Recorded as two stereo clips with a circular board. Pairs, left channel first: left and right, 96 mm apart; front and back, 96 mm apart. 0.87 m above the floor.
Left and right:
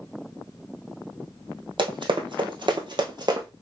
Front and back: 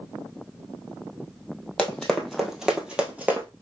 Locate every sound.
1.8 s running footsteps: 80° right, 1.7 m; by 3.5 s 115° right, 1.4 m